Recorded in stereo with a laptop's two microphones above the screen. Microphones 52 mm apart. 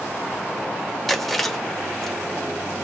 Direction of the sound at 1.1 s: Centre (ahead or behind).